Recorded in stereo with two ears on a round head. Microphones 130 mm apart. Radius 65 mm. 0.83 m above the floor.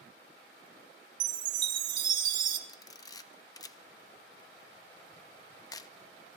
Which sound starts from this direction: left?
A camera shutter, at 2.7 s.